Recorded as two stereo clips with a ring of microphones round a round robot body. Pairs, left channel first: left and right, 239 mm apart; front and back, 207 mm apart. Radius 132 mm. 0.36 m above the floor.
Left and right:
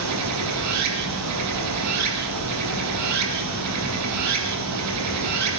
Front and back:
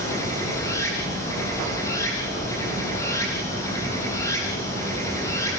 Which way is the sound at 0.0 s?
80° right.